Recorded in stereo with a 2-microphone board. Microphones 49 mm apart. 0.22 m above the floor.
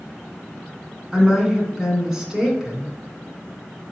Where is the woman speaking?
15° right (ahead or behind), 2.5 m.